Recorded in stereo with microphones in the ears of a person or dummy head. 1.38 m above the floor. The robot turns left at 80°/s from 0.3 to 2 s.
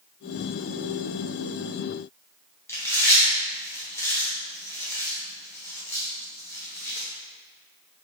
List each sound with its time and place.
2.7 s chewing: 15° left (ahead or behind), 0.6 m